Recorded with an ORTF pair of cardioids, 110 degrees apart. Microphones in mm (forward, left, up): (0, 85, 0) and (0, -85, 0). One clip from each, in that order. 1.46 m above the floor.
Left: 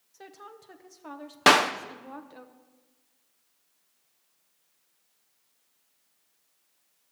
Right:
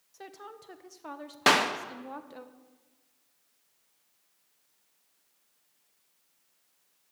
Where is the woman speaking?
10° right, 1.1 m.